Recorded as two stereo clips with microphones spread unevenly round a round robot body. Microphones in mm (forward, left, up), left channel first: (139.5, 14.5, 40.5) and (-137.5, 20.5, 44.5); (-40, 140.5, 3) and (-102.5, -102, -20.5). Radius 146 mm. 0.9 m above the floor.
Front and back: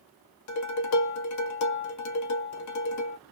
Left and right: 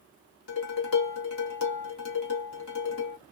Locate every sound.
0.5 s dishes clattering: 30° left, 0.7 m